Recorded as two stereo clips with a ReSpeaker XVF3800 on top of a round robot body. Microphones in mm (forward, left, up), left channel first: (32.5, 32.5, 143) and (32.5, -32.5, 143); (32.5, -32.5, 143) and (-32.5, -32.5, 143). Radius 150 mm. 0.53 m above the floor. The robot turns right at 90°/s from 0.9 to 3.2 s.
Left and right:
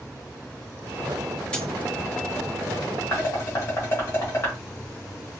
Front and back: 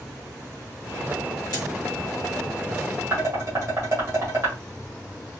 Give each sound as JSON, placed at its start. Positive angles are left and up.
{"t": 1.5, "sound": "a dropped coin", "azimuth_deg": 15, "distance_m": 3.0}
{"t": 3.1, "sound": "dishes clattering", "azimuth_deg": 130, "distance_m": 2.5}